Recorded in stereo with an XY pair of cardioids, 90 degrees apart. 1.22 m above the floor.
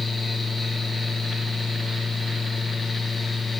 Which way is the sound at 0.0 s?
30° left.